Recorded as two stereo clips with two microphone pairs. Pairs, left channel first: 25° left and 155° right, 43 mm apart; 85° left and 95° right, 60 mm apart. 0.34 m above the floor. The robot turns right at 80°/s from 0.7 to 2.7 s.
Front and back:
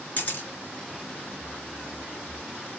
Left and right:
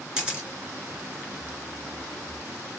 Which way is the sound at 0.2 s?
20° right.